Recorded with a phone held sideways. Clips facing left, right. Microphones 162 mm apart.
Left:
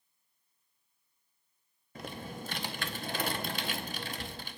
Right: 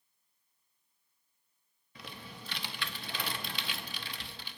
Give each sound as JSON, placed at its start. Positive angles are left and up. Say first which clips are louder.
{"t": 1.9, "sound": "typing on a keyboard", "louder": "left 7 dB", "side_deg": 45, "distance_m": 0.7}